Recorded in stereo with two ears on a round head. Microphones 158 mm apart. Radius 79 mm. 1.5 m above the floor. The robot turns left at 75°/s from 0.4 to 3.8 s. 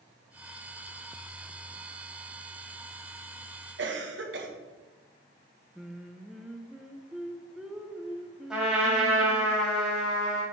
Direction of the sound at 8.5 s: 5° right (ahead or behind).